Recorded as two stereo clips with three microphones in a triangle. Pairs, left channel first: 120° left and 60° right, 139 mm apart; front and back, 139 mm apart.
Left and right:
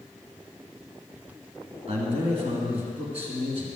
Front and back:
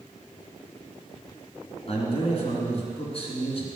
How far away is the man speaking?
About 3 m.